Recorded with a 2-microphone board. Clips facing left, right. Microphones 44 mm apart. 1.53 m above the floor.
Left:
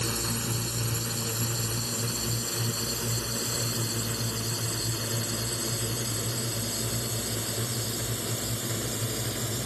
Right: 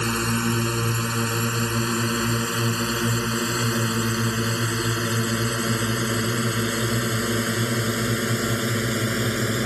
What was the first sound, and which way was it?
A drone, 70° right (ahead or behind).